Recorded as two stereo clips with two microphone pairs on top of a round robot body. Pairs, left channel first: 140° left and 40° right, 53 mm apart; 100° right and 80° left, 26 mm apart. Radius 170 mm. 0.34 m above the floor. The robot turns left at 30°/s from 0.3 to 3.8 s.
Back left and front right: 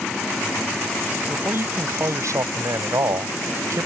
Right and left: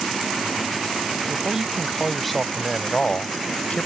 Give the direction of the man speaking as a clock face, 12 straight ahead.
12 o'clock.